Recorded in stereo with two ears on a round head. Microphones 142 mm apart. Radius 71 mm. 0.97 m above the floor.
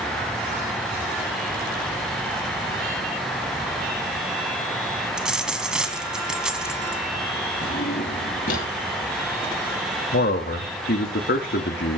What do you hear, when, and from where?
5.2 s a dropped coin: 5° right (ahead or behind), 1.5 m
7.6 s a drawer: 60° left (ahead or behind), 7.5 m
10.1 s a man speaking: 65° left (ahead or behind), 2 m